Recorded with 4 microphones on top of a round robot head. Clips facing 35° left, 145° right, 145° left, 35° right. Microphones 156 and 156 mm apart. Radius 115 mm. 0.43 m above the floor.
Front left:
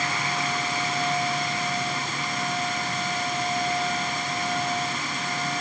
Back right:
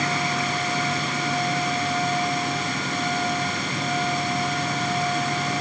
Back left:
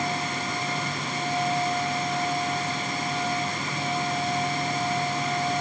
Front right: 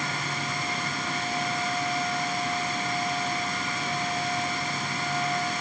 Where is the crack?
I don't hear a crack.